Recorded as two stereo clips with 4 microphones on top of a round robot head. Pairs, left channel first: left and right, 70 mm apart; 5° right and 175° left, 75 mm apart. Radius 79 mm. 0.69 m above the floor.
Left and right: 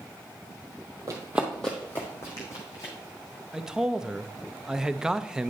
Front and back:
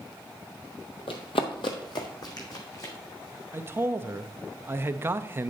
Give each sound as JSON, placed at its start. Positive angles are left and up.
{"t": 1.1, "sound": "running footsteps", "azimuth_deg": -30, "distance_m": 1.2}
{"t": 3.5, "sound": "a man speaking", "azimuth_deg": -165, "distance_m": 0.7}